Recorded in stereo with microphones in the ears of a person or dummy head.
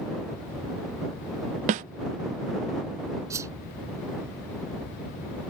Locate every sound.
1.7 s a snare drum: 35° right (ahead or behind)
3.3 s a whoosh: 20° right (ahead or behind)